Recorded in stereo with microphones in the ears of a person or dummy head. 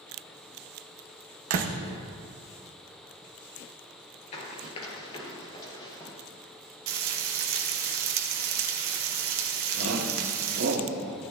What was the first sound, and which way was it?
A door slam, 60° right (ahead or behind).